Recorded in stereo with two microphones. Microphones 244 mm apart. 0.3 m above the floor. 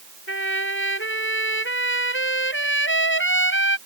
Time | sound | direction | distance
0.3 | a trumpet | 50° left (ahead or behind) | ?